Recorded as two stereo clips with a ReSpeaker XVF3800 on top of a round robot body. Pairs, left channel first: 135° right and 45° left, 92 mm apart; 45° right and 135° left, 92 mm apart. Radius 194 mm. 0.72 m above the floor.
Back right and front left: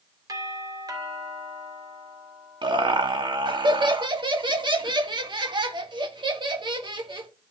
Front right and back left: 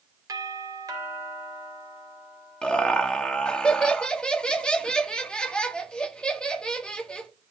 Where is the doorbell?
90° left, 3.5 m.